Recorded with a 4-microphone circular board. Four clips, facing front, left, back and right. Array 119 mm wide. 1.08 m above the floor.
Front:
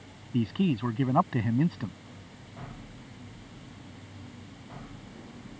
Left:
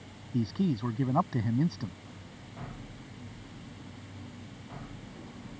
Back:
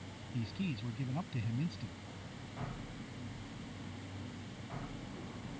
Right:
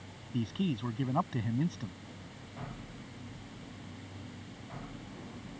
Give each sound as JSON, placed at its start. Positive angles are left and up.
{"t": 0.3, "sound": "a man speaking", "azimuth_deg": 20}